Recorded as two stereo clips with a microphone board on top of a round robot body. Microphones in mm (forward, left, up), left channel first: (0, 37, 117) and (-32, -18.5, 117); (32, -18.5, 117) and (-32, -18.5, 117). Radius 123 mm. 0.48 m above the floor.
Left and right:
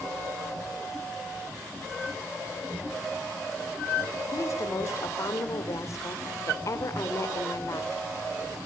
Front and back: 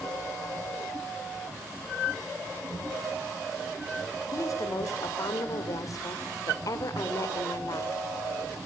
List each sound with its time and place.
4.3 s a woman speaking: 25° left, 2.5 m